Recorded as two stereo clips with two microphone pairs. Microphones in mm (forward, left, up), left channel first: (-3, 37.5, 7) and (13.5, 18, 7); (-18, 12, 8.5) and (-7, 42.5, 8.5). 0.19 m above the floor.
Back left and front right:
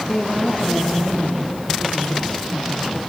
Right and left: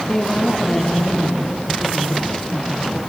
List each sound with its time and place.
0.1 s a woman speaking: 170° right, 4 m